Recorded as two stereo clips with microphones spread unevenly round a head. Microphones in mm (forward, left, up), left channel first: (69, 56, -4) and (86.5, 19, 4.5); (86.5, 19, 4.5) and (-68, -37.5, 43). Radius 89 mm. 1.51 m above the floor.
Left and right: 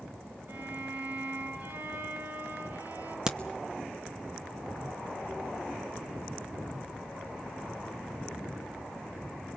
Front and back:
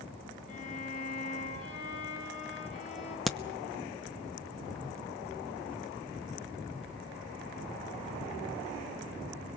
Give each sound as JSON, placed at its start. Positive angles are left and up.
{"t": 0.5, "sound": "a violin", "azimuth_deg": -30, "distance_m": 9.5}
{"t": 3.3, "sound": "a crack", "azimuth_deg": -90, "distance_m": 0.9}